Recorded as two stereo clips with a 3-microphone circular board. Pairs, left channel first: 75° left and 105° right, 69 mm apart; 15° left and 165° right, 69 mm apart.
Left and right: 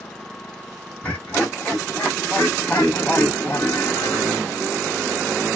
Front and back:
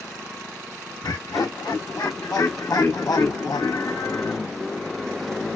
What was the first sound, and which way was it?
Laughter, 15° left.